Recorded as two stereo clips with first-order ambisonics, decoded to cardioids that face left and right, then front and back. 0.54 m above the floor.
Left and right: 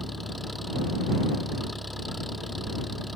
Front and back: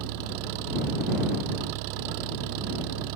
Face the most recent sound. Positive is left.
turn(degrees=175)